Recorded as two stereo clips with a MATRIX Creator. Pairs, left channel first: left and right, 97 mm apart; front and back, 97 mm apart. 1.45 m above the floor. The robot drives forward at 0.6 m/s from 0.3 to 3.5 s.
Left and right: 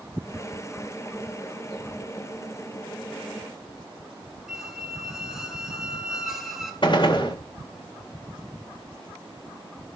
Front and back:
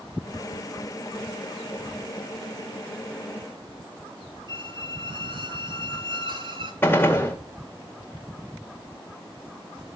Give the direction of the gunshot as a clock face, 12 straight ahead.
10 o'clock.